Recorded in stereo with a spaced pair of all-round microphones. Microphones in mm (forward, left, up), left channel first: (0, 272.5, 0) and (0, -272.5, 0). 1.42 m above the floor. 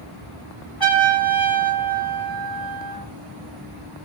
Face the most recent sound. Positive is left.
turn(degrees=40)  # may be behind; listen again after turning